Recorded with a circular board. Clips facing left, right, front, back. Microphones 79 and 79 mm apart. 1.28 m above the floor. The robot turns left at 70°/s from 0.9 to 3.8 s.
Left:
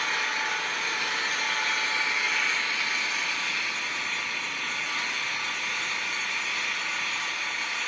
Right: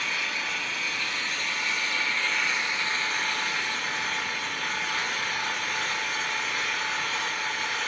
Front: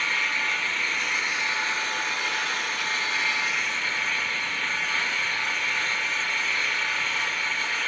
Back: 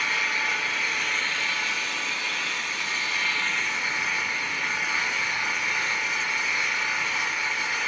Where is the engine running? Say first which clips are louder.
Left 3 dB, even; 105° left, 2 m; by 7.9 s 100° right, 2 m.